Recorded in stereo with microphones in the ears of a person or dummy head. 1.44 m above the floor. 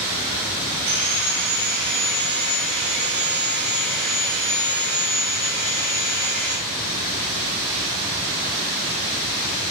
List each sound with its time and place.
0.9 s sawing: 70° right (ahead or behind), 2.5 m